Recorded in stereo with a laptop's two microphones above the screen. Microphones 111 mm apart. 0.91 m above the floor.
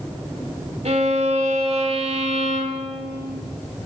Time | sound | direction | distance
0.8 | a violin | 80° right | 1.9 m